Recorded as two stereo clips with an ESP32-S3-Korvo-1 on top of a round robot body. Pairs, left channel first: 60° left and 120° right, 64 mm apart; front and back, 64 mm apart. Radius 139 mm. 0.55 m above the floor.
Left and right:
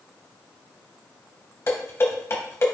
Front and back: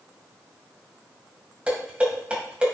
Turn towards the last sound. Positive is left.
turn(degrees=110)